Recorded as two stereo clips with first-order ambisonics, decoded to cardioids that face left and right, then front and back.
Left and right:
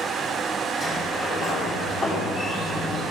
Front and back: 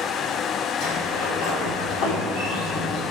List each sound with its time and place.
0.8 s a sliding door: 15° right, 3.5 m